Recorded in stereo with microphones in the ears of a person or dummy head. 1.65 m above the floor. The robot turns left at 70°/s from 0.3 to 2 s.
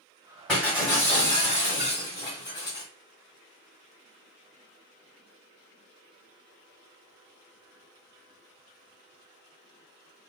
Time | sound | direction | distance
0.5 | breaking glass | centre (ahead or behind) | 1.5 m